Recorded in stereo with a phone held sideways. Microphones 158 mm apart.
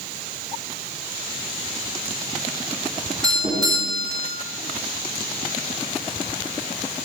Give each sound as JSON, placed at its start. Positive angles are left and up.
{"t": 3.2, "sound": "a doorbell", "side_deg": -25, "distance_m": 9.5}